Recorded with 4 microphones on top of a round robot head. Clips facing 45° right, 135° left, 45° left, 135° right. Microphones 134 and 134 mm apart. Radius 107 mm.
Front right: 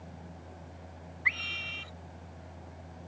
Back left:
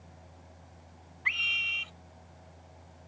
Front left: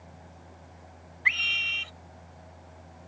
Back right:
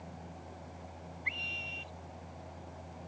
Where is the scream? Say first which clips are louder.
Even, front left 7 dB; 55° left.